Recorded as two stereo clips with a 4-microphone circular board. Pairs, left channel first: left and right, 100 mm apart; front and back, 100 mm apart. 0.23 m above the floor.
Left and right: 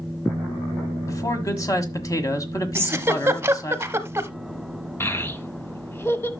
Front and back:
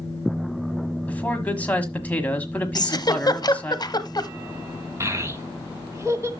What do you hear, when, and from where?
1.1 s a man speaking: 65° left, 1.4 m
2.8 s a giggle: 30° right, 0.7 m
5.0 s a child speaking: 140° left, 1.0 m